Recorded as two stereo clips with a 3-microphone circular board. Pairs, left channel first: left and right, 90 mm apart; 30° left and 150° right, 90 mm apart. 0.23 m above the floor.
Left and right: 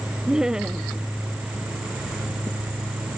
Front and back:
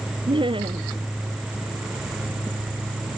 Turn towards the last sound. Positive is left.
turn(degrees=-175)